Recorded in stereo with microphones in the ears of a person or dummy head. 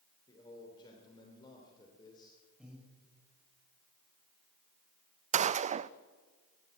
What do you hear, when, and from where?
0.3 s a man speaking: 25° left (ahead or behind), 3.5 m
2.6 s breathing: 5° right (ahead or behind), 6 m
5.3 s a gunshot: 40° right (ahead or behind), 0.5 m